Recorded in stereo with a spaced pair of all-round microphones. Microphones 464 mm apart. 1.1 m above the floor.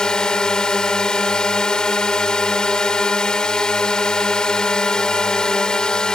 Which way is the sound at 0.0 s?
Centre (ahead or behind).